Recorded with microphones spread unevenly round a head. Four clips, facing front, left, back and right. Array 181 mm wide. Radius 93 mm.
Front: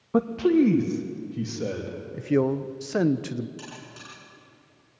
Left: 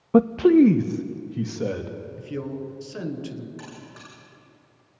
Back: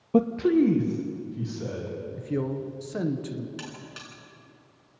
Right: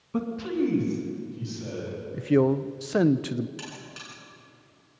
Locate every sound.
0.1 s a man speaking: 105° left, 0.5 m; by 1.9 s 70° left, 2.5 m
2.1 s a man speaking: 55° right, 0.8 m
3.6 s a buzzer: 160° right, 6 m